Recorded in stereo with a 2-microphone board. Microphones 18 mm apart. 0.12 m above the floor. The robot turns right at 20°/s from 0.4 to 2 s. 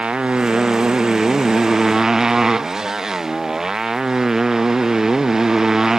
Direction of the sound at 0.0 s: 65° right.